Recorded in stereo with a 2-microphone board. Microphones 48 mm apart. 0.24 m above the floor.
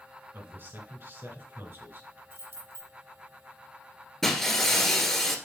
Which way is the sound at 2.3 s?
55° right (ahead or behind).